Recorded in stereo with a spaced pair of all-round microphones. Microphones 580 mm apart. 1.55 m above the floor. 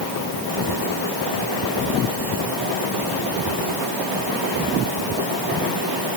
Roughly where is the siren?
No siren in this recording.